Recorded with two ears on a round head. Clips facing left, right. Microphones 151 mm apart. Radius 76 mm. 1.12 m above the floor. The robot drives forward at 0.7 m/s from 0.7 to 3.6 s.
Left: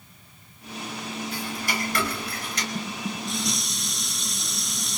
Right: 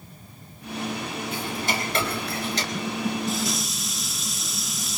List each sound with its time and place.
1.3 s ticking: 20° right (ahead or behind), 4.5 m; by 2.6 s 30° right (ahead or behind), 3.5 m
2.8 s dishes clattering: 5° right (ahead or behind), 0.8 m; by 5.0 s centre (ahead or behind), 1.4 m